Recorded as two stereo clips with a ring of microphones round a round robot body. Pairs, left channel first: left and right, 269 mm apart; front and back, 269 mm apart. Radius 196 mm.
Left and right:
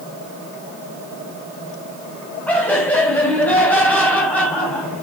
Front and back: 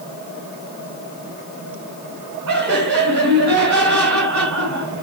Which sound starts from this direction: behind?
Laughter, at 2.5 s.